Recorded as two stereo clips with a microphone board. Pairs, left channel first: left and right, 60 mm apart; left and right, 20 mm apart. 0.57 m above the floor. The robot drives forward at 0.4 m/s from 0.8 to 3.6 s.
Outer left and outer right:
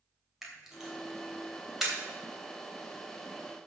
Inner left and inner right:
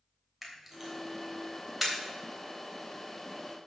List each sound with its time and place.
0.4 s a camera shutter: 10° right (ahead or behind), 3 m; by 1.9 s 5° right (ahead or behind), 3.5 m